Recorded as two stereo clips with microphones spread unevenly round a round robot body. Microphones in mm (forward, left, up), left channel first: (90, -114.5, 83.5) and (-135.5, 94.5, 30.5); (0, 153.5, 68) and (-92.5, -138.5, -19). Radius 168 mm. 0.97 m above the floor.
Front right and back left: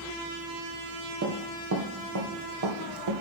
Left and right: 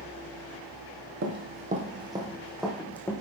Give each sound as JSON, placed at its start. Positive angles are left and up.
{"t": 1.2, "sound": "running footsteps", "azimuth_deg": -165, "distance_m": 2.0}